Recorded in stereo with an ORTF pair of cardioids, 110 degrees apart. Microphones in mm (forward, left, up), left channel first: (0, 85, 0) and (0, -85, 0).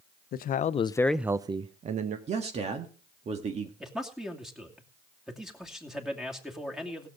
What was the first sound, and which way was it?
A man speaking, 65° left.